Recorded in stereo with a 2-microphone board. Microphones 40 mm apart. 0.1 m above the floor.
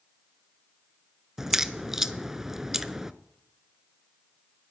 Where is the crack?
15° right (ahead or behind), 0.6 m.